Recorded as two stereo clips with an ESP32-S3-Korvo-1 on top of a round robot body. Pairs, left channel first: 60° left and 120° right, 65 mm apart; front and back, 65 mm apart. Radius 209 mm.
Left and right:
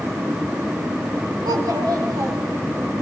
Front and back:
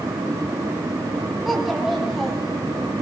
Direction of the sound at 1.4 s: 90° right.